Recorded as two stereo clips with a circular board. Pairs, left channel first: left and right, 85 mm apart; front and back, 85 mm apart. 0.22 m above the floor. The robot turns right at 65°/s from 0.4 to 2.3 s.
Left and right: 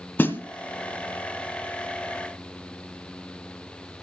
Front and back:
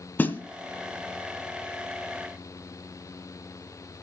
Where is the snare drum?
45° left, 1.9 m; by 0.4 s 50° left, 1.9 m.